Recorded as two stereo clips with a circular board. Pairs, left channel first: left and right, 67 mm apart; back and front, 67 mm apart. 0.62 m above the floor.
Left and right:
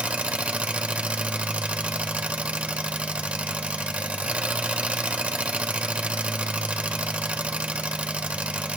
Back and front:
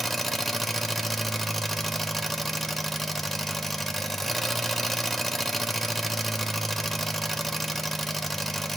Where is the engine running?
95° right, 0.7 m.